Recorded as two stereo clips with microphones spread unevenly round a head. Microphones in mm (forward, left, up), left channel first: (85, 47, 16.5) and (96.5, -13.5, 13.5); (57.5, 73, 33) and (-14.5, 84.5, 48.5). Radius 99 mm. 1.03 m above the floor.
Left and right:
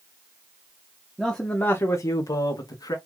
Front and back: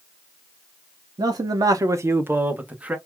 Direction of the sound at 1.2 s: 165° right.